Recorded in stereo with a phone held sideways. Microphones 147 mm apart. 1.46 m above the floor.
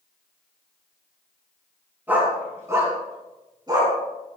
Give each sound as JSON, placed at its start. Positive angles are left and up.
{"t": 2.1, "sound": "a dog barking", "side_deg": -10, "distance_m": 6.0}